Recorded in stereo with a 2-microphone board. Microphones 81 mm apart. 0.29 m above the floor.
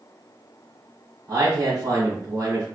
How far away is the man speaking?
About 1.6 m.